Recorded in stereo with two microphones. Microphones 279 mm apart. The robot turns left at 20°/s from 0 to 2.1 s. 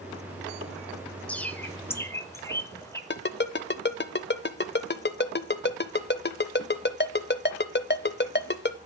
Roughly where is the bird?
Centre.